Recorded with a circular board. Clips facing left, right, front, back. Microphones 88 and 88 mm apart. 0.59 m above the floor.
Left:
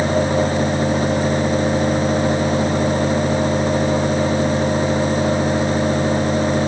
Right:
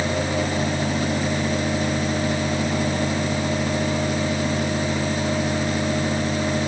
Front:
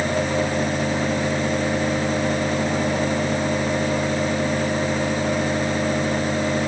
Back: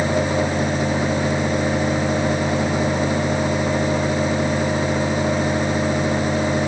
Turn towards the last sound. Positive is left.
No sound to turn to.